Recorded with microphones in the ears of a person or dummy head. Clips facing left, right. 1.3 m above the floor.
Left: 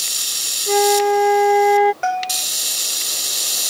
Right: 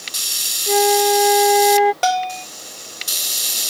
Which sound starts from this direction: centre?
A flute, at 0.7 s.